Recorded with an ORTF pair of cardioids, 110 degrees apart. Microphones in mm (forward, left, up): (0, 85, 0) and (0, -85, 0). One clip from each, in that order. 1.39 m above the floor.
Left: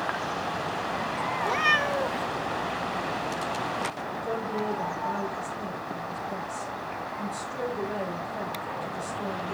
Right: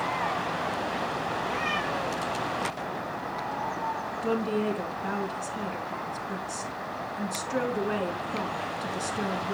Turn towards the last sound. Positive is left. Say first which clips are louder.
# right 2 dB
turn(degrees=-70)